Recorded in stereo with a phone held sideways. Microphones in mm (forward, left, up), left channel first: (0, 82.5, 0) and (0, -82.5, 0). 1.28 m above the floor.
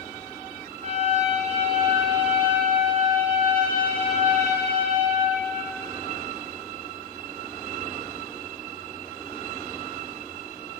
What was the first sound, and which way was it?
A trumpet, 45° right (ahead or behind).